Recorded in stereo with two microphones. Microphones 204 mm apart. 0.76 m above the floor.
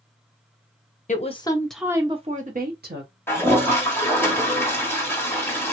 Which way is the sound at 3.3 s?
10° left (ahead or behind).